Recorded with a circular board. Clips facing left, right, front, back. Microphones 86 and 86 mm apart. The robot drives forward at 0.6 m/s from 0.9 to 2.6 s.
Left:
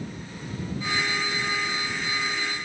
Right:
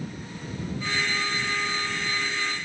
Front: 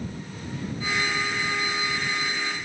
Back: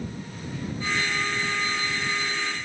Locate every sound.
Only background noise.